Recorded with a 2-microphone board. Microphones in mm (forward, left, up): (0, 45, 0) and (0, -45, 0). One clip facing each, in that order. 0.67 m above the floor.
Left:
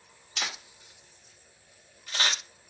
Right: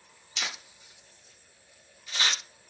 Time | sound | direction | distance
0.4 | a camera shutter | 50° left (ahead or behind) | 0.9 m